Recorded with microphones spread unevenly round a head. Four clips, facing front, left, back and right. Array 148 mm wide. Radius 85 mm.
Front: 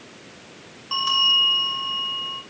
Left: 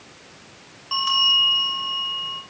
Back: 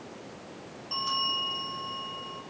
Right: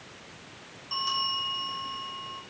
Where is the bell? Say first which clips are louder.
Left 7 dB, front 7 dB; 25° left, 5.5 m.